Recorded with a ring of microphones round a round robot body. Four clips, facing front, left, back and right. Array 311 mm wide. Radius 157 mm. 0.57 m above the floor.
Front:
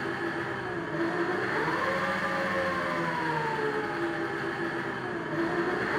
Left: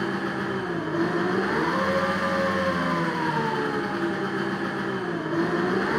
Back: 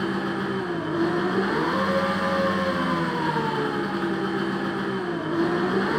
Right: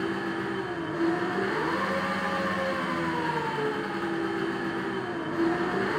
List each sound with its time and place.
0.0 s an engine running: 145° left, 6 m